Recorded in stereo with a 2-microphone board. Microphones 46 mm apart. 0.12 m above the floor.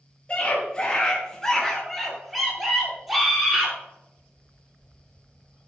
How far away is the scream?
About 1.7 m.